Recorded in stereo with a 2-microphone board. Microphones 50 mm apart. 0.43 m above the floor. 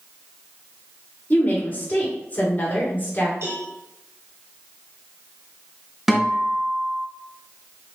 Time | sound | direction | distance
1.3 | a woman speaking | 35° left (ahead or behind) | 1.7 m
3.4 | a cowbell | 55° right (ahead or behind) | 2.5 m
6.1 | a guitar | centre (ahead or behind) | 1.5 m